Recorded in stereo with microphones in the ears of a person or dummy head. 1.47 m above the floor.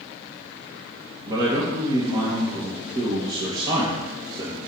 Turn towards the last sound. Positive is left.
turn(degrees=-20)  # may be behind; listen again after turning